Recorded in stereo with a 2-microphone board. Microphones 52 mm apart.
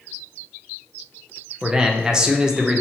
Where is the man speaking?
10° right (ahead or behind), 0.5 m.